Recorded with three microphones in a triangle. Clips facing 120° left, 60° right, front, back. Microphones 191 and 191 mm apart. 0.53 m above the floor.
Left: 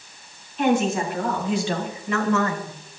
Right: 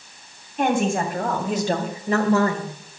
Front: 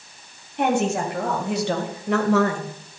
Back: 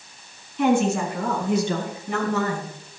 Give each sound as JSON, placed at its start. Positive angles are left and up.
{"t": 0.6, "sound": "a woman speaking", "azimuth_deg": -20, "distance_m": 3.0}